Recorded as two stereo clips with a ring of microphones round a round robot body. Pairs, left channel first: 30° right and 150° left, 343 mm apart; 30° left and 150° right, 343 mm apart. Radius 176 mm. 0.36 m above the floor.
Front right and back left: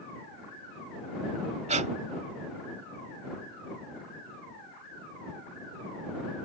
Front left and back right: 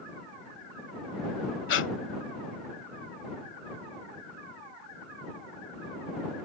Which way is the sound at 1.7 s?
80° left.